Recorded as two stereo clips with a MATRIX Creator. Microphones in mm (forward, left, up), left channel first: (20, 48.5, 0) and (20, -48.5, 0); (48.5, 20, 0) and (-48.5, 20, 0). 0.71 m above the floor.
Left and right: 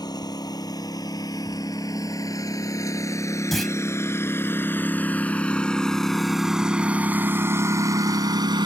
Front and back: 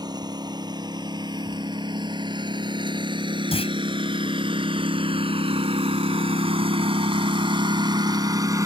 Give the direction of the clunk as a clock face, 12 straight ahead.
12 o'clock.